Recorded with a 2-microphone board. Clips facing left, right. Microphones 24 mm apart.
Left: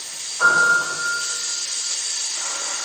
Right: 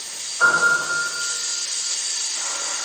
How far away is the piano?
About 1.7 m.